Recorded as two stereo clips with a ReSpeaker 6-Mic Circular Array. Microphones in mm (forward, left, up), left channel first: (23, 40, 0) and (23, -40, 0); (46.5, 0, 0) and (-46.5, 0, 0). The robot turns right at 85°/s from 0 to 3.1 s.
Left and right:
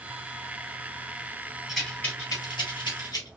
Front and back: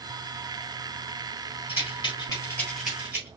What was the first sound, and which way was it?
A rattle, 10° right.